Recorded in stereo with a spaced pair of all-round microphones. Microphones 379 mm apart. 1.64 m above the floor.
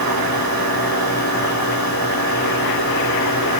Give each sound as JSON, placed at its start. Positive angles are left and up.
{"t": 0.0, "sound": "a machine running", "side_deg": -70, "distance_m": 7.5}